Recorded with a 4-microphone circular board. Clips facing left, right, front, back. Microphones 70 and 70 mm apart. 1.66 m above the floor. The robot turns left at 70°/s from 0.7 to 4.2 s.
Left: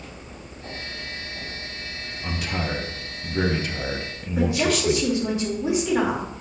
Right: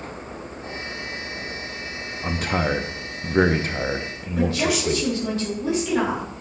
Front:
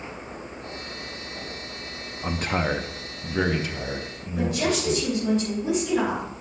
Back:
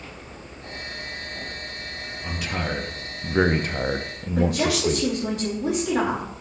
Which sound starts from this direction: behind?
A woman speaking, at 4.4 s.